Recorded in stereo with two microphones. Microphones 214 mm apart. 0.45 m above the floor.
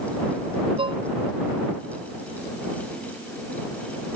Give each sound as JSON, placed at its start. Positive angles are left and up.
{"t": 0.8, "sound": "dishes clattering", "side_deg": -25}